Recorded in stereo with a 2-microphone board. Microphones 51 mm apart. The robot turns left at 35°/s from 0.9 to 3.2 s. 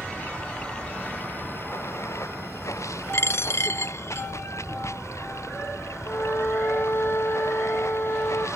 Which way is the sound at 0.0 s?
155° left.